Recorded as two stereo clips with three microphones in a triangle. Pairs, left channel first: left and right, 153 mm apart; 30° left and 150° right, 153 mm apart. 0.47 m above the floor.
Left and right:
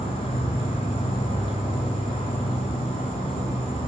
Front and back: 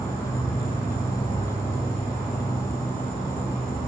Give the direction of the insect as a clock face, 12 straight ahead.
10 o'clock.